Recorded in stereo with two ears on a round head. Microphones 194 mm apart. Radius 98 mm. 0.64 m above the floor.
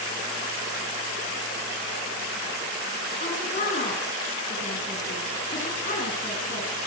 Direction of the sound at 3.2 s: 35° left (ahead or behind).